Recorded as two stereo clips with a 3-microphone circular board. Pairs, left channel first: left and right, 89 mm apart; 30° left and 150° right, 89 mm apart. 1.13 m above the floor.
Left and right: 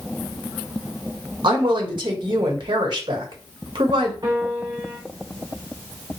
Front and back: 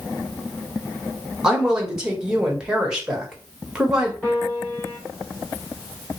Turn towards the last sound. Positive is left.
turn(degrees=-50)